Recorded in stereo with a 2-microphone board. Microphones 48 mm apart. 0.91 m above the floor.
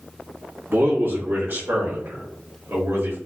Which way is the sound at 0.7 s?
50° right (ahead or behind).